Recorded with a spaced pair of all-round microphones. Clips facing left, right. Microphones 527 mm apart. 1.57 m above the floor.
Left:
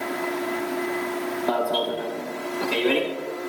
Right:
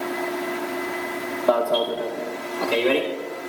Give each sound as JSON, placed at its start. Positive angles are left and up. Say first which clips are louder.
{"t": 1.5, "sound": "an alarm", "louder": "right 6 dB", "side_deg": 10, "distance_m": 4.0}